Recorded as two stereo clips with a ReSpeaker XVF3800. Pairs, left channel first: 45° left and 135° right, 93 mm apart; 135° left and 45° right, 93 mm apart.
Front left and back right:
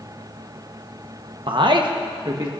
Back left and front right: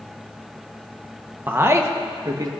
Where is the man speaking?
110° right, 1.1 m; by 2.5 s 90° right, 1.5 m.